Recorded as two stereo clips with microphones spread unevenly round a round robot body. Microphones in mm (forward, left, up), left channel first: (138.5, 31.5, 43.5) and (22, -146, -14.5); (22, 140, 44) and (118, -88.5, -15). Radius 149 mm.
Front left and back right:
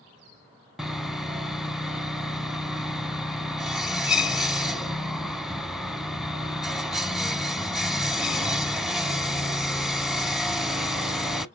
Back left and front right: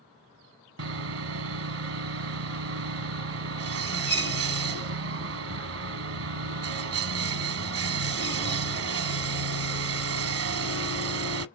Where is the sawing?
35° right, 0.8 m.